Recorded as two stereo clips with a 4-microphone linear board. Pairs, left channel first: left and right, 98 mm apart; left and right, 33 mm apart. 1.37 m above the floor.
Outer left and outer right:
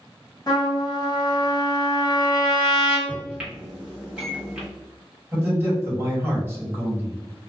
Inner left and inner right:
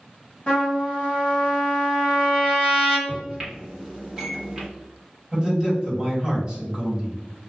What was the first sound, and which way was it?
A trumpet, 40° left (ahead or behind).